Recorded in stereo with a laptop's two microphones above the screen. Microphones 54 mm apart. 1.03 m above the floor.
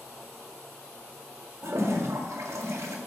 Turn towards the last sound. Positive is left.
turn(degrees=-70)  # may be behind; listen again after turning